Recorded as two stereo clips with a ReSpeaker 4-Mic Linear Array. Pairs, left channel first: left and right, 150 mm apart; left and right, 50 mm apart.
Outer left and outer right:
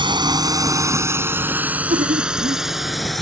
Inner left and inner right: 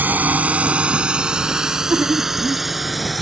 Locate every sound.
0.0 s a drone: 35° right (ahead or behind); by 3.2 s centre (ahead or behind)
1.6 s laughter: 70° right (ahead or behind)